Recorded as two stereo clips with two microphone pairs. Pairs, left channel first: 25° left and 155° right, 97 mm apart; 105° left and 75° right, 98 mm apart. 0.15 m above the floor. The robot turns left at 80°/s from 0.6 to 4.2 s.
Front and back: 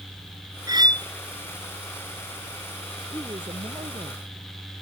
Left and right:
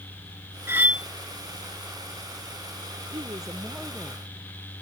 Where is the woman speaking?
100° right; by 4.8 s 175° left.